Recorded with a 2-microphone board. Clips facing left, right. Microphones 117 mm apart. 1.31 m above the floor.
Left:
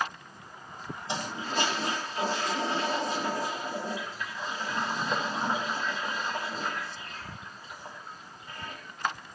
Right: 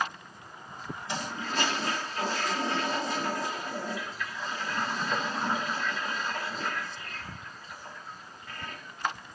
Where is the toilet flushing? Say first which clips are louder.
Left 1 dB; 25° left (ahead or behind), 5 m.